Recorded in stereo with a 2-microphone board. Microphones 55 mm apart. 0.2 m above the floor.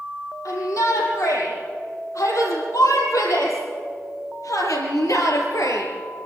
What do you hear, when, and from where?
0.5 s a shout: 80° left, 7 m; by 5.9 s 75° left (ahead or behind), 4 m